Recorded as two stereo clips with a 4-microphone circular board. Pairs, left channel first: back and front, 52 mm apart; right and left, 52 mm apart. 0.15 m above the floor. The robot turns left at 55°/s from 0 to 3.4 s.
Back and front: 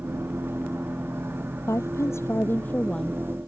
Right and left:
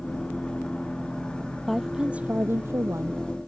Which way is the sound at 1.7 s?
Straight behind.